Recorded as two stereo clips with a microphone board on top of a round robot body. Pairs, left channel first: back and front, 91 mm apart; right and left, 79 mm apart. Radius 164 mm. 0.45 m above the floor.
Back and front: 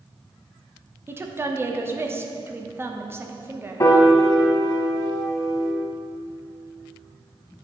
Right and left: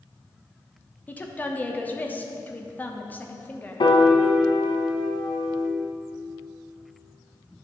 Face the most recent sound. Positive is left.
turn(degrees=-120)